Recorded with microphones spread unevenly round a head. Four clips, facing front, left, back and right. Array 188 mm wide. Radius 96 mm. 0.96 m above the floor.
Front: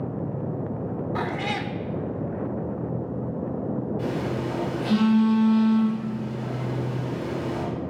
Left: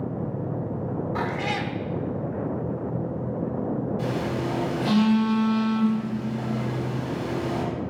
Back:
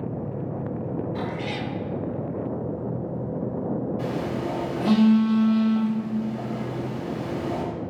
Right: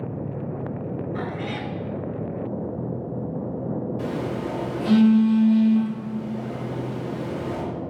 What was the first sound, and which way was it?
A cat meowing, 30° left.